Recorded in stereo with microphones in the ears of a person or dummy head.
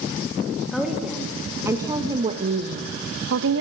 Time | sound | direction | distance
0.7 | a woman speaking | 5° left (ahead or behind) | 3 m